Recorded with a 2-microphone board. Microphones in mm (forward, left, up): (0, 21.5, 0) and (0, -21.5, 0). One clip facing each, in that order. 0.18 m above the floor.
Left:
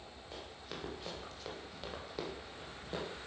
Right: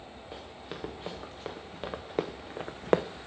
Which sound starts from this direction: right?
Running footsteps, at 0.3 s.